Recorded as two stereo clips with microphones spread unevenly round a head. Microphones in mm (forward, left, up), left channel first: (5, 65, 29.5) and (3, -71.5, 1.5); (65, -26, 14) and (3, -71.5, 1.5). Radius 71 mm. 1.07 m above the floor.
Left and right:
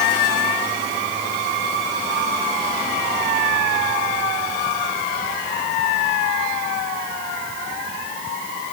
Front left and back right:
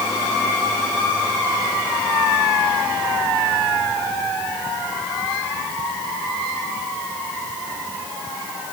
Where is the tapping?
I don't hear tapping.